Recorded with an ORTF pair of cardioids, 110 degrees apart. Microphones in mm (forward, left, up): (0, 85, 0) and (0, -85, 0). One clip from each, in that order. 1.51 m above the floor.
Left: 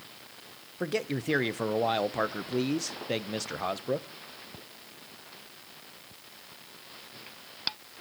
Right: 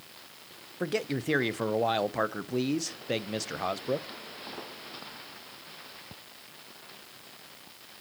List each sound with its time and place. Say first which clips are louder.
0.8 s a man speaking: even; straight ahead, 0.7 m